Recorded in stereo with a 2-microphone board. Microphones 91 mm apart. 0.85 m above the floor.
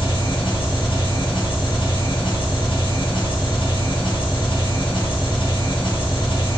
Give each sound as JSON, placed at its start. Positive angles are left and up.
{"t": 0.0, "sound": "an engine running", "side_deg": 60, "distance_m": 1.1}